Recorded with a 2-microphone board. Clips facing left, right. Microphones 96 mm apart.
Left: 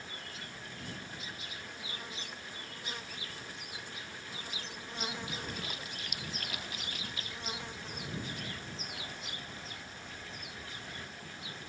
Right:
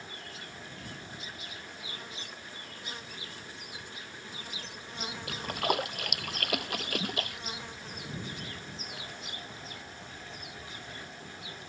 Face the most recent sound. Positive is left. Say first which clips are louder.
# right 10 dB
turn(degrees=-65)  # may be behind; listen again after turning